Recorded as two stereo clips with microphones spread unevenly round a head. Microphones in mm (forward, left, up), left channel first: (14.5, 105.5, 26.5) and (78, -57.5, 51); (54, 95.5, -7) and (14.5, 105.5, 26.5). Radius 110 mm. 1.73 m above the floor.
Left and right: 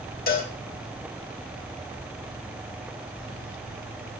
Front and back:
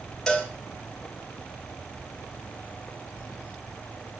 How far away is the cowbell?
About 3 m.